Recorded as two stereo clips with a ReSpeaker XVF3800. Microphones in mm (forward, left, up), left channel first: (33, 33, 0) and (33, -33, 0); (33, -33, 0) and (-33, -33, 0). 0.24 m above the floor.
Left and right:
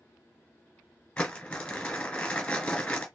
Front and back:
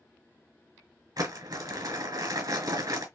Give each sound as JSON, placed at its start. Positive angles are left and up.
{"t": 1.2, "sound": "crumpling", "azimuth_deg": 165, "distance_m": 1.8}